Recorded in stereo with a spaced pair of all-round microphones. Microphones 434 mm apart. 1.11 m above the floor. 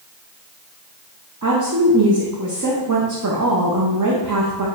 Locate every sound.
1.4 s a woman speaking: 45° right (ahead or behind), 0.7 m